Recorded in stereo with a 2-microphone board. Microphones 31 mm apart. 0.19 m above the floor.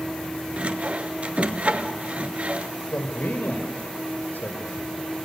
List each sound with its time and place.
0.6 s sawing: 45° right (ahead or behind), 1.2 m
2.9 s a man speaking: 65° left (ahead or behind), 4 m